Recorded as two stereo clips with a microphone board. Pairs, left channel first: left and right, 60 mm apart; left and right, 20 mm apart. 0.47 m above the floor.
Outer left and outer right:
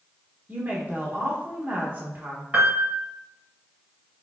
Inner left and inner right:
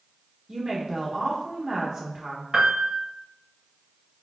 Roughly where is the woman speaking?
Right.